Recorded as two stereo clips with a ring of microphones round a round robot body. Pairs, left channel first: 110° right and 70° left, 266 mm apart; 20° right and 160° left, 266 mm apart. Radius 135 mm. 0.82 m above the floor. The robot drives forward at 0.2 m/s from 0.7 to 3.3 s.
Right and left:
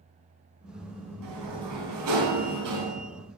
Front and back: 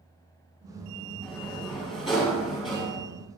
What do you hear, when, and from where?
1.2 s a sliding door: 65° left, 7 m; by 3.0 s 70° left, 6.5 m